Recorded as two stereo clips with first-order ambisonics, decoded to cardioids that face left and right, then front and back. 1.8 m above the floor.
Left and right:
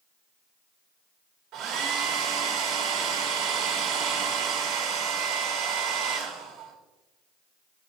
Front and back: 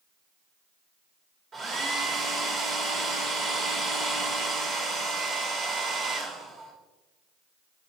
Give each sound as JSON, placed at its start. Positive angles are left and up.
{"t": 1.5, "sound": "a hair dryer", "azimuth_deg": -125, "distance_m": 1.6}